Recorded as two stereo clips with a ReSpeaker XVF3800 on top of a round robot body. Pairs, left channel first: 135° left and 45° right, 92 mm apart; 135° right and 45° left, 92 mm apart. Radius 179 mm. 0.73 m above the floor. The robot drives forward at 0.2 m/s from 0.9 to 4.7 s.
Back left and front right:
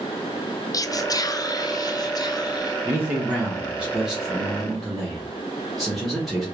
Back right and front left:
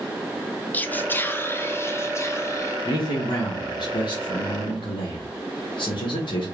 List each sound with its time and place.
0.7 s whispering: 160° left, 0.5 m; by 2.8 s 170° left, 0.8 m
2.9 s a man speaking: 110° right, 0.8 m; by 6.5 s 135° right, 0.9 m